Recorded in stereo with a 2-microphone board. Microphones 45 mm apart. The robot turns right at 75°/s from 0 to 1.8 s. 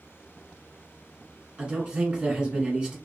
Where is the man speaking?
20° right (ahead or behind), 1.1 m.